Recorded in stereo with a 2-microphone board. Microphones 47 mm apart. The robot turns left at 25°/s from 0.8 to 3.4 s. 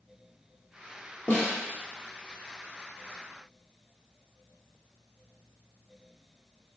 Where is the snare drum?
45° left (ahead or behind), 0.9 m; by 1.6 s 35° left (ahead or behind), 0.9 m.